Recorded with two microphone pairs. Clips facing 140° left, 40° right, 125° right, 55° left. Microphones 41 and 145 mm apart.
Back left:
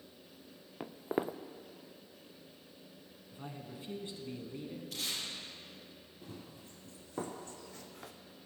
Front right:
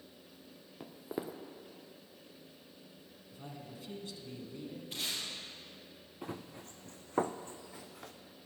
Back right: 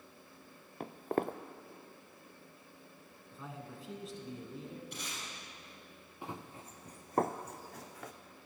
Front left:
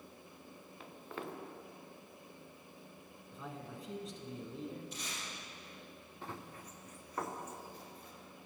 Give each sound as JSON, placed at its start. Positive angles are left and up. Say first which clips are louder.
{"t": 0.8, "sound": "footsteps", "louder": "back left 5 dB, back right 11 dB", "azimuth_deg": -170, "distance_m": 0.6}
{"t": 3.3, "sound": "a man speaking", "louder": "back left 2 dB, front left 1 dB", "azimuth_deg": 145, "distance_m": 1.2}
{"t": 4.9, "sound": "tape being pulled", "louder": "front right 1 dB, back right 1 dB", "azimuth_deg": -95, "distance_m": 3.5}
{"t": 6.2, "sound": "running footsteps", "louder": "front right 7 dB, back right 2 dB", "azimuth_deg": -50, "distance_m": 0.9}